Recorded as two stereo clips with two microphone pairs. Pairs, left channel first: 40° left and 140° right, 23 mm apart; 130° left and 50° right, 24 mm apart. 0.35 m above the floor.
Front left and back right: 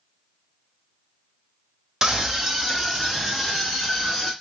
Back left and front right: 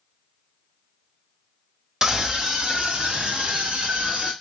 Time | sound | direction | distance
2.0 | a scream | 95° right | 1.0 m